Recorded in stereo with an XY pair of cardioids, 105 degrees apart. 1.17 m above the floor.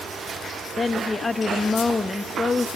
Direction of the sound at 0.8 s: 20° left.